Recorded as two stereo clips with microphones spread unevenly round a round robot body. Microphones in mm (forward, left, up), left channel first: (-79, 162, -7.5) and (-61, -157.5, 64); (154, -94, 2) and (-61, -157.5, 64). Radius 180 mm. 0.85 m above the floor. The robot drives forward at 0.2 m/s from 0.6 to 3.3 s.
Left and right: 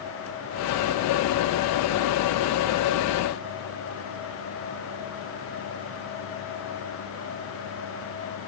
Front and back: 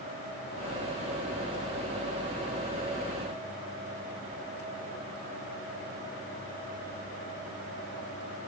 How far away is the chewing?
I don't hear chewing.